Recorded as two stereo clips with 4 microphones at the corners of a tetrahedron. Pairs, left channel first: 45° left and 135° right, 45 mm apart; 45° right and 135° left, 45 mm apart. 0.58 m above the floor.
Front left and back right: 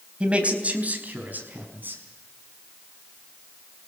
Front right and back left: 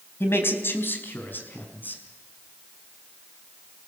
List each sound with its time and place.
0.2 s a man speaking: 70° right, 3 m; by 2.0 s 90° right, 5 m